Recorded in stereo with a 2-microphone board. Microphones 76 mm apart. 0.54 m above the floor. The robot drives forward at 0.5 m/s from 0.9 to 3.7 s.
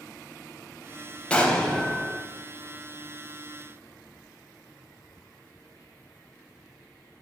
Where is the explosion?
15° left (ahead or behind), 0.5 m; by 2.2 s 10° left (ahead or behind), 0.9 m.